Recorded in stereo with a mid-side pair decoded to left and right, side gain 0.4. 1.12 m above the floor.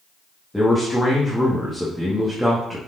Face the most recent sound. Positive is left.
turn(degrees=5)